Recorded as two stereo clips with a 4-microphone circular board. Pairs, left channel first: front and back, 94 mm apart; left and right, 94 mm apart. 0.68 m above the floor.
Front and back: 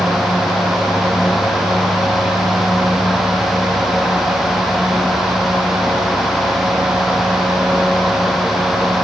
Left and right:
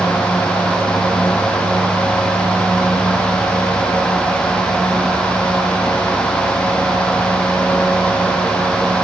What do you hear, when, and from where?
Only background noise.